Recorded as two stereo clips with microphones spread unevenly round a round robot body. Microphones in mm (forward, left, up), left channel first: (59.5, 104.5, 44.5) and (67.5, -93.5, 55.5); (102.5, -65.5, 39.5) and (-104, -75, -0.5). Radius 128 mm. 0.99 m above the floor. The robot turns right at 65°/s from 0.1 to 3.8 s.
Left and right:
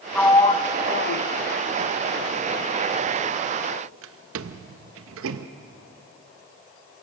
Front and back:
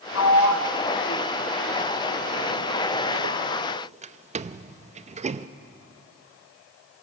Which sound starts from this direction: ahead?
A sliding door, at 0.1 s.